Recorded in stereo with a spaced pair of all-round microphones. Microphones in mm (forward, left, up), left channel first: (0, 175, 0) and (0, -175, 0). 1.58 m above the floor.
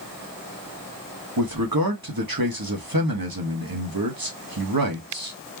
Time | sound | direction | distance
1.4 | a man speaking | 75° right (ahead or behind) | 1.9 m